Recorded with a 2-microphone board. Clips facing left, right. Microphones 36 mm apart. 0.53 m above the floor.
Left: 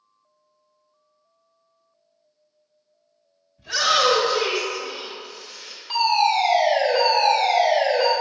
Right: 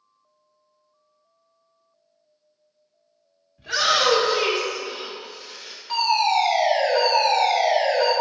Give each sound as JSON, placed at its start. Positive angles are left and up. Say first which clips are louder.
{"t": 3.6, "sound": "a shout", "louder": "left 1 dB", "side_deg": -35, "distance_m": 1.4}
{"t": 5.9, "sound": "a fire alarm", "louder": "left 1 dB", "side_deg": 5, "distance_m": 1.6}